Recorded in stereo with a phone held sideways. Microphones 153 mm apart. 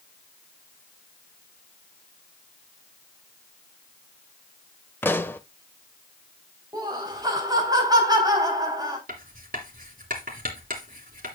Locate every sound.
5.0 s a pop: 15° left (ahead or behind), 0.8 m
6.7 s laughter: 25° right (ahead or behind), 4 m
9.1 s writing: 70° right (ahead or behind), 3 m